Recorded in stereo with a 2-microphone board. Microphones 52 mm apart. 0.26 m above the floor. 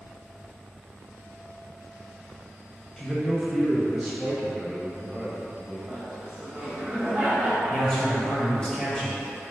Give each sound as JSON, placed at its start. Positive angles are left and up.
{"t": 3.0, "sound": "a man speaking", "side_deg": 15, "distance_m": 1.0}
{"t": 5.9, "sound": "laughter", "side_deg": -25, "distance_m": 1.2}
{"t": 7.7, "sound": "a man speaking", "side_deg": 15, "distance_m": 1.1}